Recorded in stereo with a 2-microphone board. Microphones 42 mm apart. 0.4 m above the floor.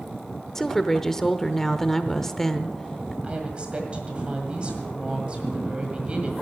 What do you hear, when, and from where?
0.6 s a woman speaking: 10° left (ahead or behind), 0.8 m
3.2 s a woman speaking: 30° right (ahead or behind), 1.8 m